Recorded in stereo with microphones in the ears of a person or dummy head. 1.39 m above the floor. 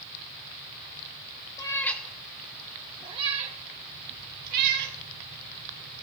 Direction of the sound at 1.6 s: 15° left (ahead or behind).